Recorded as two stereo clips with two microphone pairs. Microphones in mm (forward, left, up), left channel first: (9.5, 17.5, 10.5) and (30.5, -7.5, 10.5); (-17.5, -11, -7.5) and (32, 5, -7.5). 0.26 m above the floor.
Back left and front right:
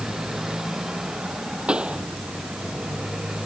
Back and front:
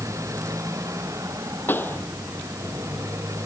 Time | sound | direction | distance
0.0 | a motorcycle | 25° left | ?
1.7 | a pop | 110° right | ?